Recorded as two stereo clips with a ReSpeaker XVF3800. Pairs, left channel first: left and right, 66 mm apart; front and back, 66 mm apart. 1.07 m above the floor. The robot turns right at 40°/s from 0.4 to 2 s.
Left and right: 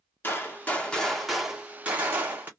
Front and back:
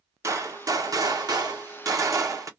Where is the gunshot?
145° left, 0.8 m; by 2.5 s 150° right, 0.8 m.